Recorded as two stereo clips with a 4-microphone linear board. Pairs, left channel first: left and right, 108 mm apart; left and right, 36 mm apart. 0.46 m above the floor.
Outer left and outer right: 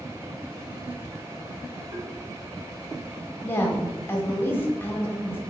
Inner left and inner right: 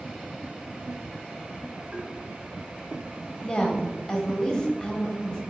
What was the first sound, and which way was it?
Tapping, 55° right (ahead or behind).